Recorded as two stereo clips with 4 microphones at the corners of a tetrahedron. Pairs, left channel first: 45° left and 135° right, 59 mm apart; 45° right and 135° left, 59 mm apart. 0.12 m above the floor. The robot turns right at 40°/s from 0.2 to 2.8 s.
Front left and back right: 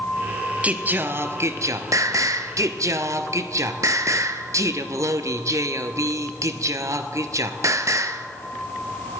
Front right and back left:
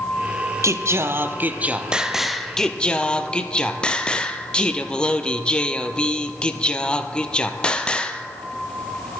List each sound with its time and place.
0.6 s singing: 160° left, 0.6 m; by 8.3 s 115° right, 0.6 m